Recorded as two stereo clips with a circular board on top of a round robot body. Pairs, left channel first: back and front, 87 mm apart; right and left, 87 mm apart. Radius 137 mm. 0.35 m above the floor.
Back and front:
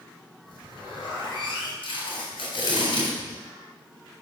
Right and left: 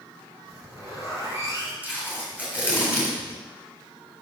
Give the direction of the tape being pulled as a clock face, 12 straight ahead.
7 o'clock.